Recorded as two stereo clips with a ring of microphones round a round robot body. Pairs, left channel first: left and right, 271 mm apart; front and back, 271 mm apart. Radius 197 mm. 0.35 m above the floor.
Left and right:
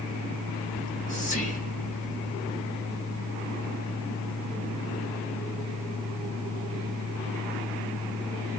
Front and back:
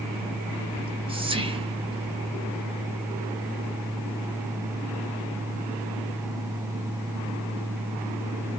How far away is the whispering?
About 0.9 m.